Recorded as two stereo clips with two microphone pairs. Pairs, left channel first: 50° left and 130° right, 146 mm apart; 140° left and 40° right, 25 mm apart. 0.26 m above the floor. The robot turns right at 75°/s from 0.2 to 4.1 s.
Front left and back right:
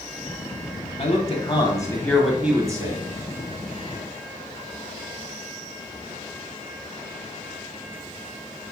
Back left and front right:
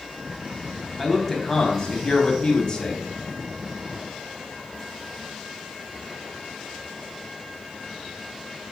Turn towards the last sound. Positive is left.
turn(degrees=-85)